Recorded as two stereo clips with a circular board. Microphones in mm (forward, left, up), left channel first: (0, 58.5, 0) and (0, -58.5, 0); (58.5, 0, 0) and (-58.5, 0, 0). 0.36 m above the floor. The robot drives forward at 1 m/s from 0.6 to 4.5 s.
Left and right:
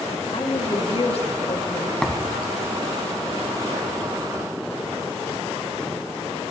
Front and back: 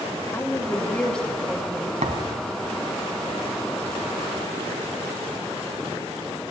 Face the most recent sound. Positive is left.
turn(degrees=180)